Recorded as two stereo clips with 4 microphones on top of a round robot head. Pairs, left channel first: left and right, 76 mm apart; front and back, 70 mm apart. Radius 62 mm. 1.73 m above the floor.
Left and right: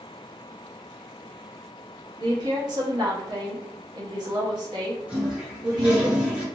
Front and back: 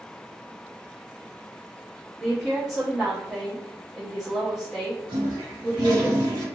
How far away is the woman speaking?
About 0.9 m.